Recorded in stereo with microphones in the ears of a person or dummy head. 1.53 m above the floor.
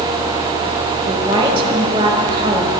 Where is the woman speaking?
25° right (ahead or behind), 1.9 m.